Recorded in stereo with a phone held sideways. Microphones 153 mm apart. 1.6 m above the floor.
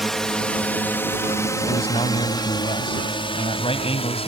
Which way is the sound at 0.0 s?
Centre (ahead or behind).